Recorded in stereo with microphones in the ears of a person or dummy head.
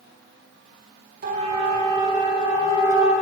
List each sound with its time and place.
1.2 s a siren: 45° right (ahead or behind), 4.5 m; by 3.1 s 20° right (ahead or behind), 6 m